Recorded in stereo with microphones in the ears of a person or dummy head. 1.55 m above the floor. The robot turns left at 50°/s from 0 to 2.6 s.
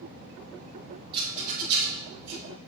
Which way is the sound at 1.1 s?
30° right (ahead or behind).